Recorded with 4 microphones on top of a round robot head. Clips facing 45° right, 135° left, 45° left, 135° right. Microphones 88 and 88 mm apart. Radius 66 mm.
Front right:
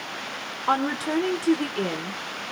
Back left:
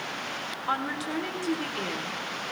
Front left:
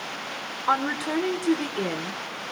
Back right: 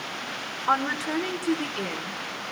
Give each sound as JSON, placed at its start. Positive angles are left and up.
{"t": 0.7, "sound": "a woman speaking", "azimuth_deg": -30, "distance_m": 1.9}